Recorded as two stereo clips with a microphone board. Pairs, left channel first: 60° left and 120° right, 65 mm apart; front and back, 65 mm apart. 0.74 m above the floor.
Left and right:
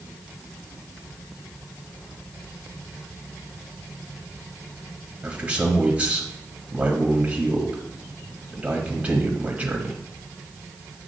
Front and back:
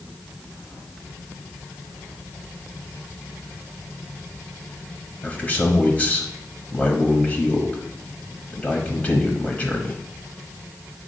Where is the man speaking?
65° right, 1.1 m.